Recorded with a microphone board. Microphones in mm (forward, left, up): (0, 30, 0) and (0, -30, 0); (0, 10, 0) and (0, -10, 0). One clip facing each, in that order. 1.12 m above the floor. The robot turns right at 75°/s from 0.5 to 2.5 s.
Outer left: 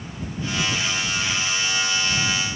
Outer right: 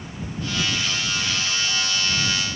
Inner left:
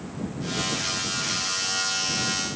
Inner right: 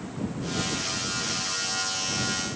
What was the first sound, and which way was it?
Only background noise.